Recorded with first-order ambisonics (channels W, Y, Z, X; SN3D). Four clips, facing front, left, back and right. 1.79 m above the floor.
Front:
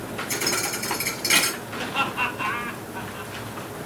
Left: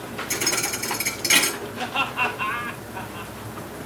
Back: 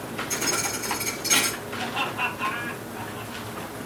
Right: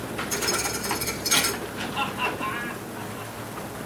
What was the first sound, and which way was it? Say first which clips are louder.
A thud: left 3 dB, front 1 dB; 65° left.